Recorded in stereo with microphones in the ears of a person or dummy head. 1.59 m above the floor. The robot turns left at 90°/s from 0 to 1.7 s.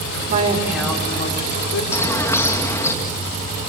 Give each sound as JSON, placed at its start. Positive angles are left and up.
{"t": 0.3, "sound": "a woman speaking", "azimuth_deg": -130, "distance_m": 6.0}
{"t": 1.9, "sound": "a bird", "side_deg": 15, "distance_m": 2.5}